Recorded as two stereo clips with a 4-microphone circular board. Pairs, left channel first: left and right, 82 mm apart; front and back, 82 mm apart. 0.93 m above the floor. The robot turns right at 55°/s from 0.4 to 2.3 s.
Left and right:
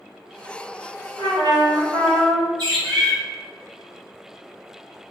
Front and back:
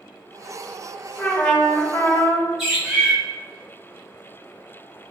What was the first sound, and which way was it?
A trumpet, 95° right.